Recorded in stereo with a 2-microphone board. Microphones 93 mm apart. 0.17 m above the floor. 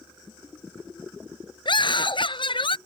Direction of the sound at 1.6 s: 60° left (ahead or behind).